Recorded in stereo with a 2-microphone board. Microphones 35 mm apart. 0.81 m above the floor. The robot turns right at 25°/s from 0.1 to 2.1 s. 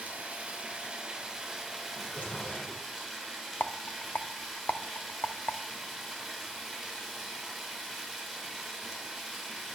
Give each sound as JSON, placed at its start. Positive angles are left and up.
{"t": 0.0, "sound": "running water", "azimuth_deg": -40, "distance_m": 4.5}
{"t": 1.9, "sound": "a drawer", "side_deg": 45, "distance_m": 10.0}
{"t": 3.6, "sound": "a rattle", "side_deg": 60, "distance_m": 1.0}